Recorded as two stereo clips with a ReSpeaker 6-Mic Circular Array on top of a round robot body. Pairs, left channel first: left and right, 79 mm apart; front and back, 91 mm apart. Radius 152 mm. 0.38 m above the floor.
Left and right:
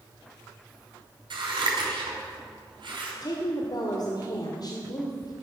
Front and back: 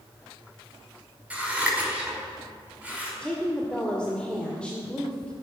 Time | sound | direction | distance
1.3 | scissors | 105° right | 5.5 m
3.2 | a woman speaking | 75° left | 2 m